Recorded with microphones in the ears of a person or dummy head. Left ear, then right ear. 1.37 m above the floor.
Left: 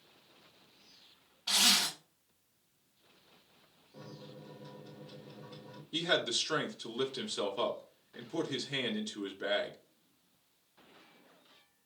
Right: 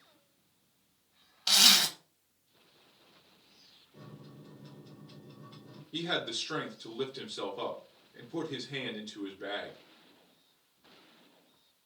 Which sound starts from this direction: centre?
A microwave, at 3.9 s.